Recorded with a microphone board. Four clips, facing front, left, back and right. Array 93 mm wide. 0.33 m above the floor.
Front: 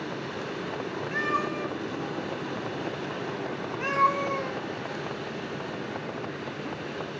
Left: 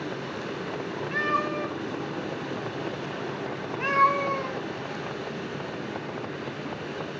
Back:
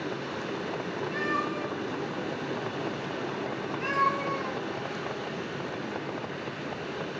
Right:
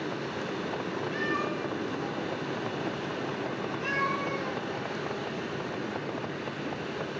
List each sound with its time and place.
1.1 s a cat meowing: 70° left, 0.5 m